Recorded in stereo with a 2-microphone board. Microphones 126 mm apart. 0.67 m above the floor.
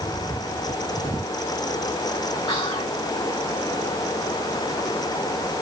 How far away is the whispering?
About 0.8 m.